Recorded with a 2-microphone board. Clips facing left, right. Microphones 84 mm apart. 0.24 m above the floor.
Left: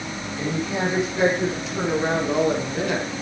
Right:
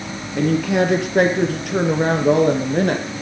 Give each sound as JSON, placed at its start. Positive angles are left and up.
{"t": 0.4, "sound": "a woman speaking", "side_deg": -70, "distance_m": 4.0}